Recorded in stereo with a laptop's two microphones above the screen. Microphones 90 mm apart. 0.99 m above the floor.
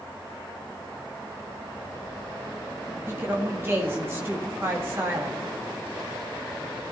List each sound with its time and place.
3.1 s a woman speaking: 25° right (ahead or behind), 1.9 m